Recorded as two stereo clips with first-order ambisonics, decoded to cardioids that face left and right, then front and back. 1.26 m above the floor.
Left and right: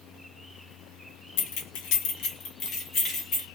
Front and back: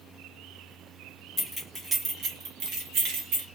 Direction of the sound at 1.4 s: 80° left.